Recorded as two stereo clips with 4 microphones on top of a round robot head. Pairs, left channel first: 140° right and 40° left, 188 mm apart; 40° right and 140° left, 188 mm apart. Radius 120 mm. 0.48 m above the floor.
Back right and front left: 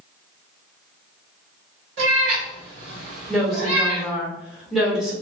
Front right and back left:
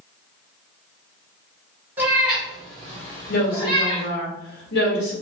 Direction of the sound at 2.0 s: 60° left.